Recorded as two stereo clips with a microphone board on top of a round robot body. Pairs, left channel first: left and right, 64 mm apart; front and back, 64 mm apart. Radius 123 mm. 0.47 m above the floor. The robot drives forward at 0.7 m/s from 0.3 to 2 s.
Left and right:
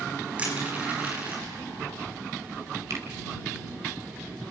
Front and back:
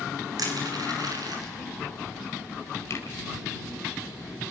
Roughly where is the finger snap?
Ahead right.